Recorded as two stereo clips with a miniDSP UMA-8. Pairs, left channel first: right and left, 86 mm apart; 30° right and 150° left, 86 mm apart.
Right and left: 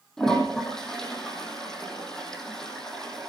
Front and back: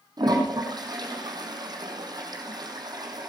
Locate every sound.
0.2 s a toilet flushing: 175° right, 4.5 m